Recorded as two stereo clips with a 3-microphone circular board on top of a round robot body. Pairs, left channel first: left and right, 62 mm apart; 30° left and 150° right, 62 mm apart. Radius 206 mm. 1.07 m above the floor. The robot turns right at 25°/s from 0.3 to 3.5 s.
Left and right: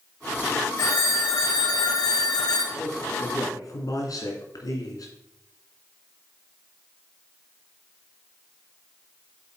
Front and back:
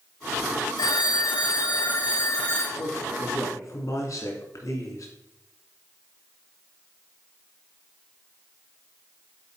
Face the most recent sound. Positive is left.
turn(degrees=60)